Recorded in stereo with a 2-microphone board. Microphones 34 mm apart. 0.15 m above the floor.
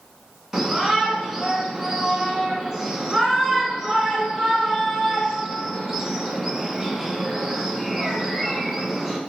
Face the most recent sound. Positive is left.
turn(degrees=-15)  # may be behind; listen again after turning